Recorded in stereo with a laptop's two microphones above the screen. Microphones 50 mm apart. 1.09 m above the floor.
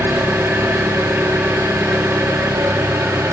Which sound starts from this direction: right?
An engine running, at 0.0 s.